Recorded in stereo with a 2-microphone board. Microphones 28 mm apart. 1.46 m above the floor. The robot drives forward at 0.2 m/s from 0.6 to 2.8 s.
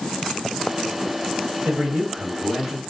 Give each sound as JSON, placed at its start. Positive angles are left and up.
{"t": 1.6, "sound": "a man speaking", "side_deg": -80, "distance_m": 1.4}